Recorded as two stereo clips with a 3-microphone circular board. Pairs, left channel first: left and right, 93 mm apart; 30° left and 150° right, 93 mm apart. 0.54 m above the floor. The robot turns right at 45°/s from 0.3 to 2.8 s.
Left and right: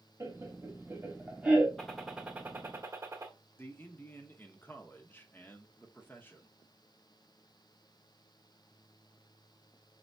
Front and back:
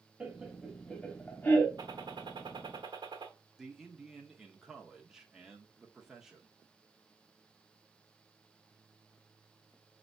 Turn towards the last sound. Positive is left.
turn(degrees=130)